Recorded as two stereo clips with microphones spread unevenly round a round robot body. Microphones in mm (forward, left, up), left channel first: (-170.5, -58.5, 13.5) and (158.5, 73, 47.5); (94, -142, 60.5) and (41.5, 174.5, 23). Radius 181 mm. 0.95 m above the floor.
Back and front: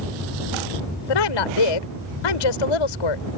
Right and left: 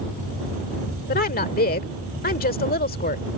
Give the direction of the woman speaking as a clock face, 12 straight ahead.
5 o'clock.